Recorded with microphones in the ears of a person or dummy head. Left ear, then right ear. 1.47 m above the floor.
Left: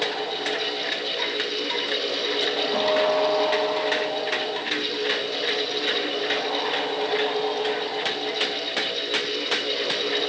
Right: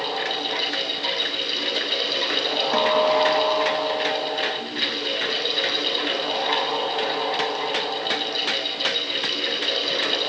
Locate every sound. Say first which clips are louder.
0.0 s a fan: right 1 dB; 50° right (ahead or behind), 7.5 m
2.7 s a guitar: right 3 dB; 55° right (ahead or behind), 2 m